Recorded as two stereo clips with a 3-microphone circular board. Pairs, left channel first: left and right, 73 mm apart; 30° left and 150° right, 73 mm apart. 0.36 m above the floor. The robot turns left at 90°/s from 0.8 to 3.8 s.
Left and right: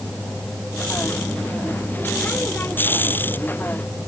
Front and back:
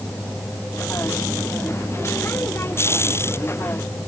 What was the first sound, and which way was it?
Only background noise.